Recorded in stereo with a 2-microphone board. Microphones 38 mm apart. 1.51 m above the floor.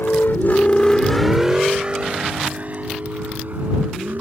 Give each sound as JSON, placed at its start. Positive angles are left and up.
{"t": 0.0, "sound": "a vehicle", "side_deg": 70}